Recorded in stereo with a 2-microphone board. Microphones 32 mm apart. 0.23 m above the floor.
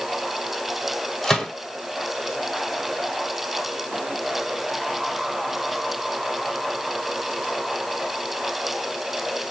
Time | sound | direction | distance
1.2 | a gunshot | 25° left (ahead or behind) | 1.2 m